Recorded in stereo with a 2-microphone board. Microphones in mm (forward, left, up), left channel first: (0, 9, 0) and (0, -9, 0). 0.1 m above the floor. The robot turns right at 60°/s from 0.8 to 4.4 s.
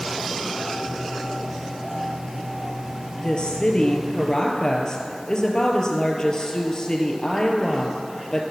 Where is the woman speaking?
55° left, 1.9 m; by 8.4 s 130° left, 1.9 m.